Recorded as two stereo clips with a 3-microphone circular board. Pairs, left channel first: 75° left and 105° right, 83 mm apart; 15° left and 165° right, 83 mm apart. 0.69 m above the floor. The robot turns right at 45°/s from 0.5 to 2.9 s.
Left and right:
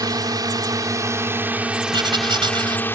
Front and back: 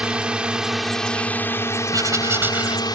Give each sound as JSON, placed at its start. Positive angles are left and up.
{"t": 0.0, "sound": "a drone", "azimuth_deg": -90}
{"t": 1.9, "sound": "writing", "azimuth_deg": -125}